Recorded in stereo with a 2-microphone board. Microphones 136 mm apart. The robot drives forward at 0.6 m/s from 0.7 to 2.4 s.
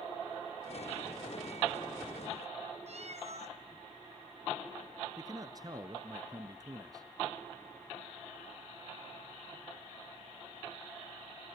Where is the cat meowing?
60° right (ahead or behind), 1.1 m.